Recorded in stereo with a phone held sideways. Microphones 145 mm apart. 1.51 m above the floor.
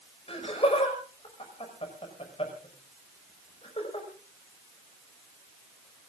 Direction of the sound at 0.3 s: 40° left (ahead or behind).